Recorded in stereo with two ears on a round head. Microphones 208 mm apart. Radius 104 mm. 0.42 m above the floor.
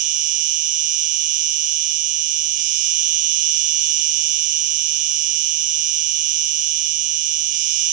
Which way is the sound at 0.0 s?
70° right (ahead or behind).